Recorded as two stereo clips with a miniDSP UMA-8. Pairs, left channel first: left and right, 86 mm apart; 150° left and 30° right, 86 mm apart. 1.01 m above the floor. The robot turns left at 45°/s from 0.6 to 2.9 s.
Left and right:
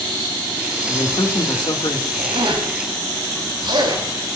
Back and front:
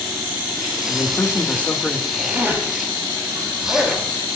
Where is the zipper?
80° right, 6 m; by 4.0 s 115° right, 6 m.